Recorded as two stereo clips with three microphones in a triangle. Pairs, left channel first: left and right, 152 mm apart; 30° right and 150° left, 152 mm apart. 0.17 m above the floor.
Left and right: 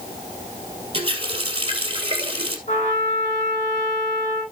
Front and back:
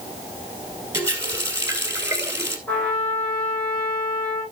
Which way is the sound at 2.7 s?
55° left.